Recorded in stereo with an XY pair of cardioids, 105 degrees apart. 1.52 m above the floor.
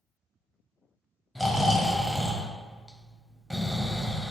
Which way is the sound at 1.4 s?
5° right.